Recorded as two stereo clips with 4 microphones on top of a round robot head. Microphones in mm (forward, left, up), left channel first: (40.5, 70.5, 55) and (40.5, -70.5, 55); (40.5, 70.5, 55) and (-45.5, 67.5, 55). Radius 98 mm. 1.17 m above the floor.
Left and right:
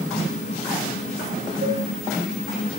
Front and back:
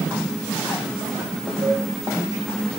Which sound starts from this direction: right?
A cowbell, at 1.6 s.